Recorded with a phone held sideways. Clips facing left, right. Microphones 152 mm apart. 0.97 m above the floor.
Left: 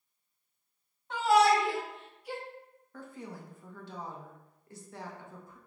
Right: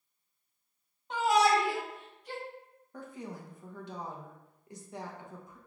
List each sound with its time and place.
1.1 s a shout: 20° right (ahead or behind), 1.7 m; by 2.4 s 20° left (ahead or behind), 0.8 m
2.9 s a woman speaking: 20° right (ahead or behind), 0.9 m